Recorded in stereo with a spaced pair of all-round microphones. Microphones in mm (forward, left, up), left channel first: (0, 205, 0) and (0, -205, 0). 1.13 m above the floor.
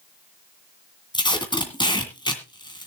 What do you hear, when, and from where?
1.1 s tape being pulled: 10° left (ahead or behind), 2 m